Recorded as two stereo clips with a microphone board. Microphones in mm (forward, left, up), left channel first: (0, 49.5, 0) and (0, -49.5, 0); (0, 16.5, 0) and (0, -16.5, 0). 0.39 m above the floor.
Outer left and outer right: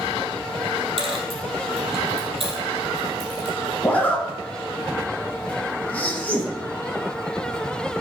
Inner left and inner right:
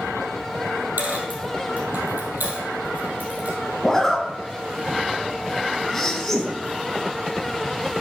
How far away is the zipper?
About 1.4 m.